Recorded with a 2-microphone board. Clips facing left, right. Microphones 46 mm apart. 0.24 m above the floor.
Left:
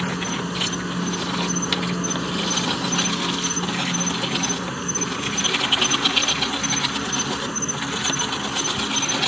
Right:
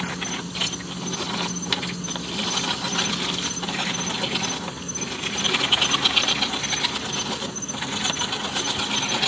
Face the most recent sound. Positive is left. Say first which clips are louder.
# left 4 dB
turn(degrees=60)  # may be behind; listen again after turning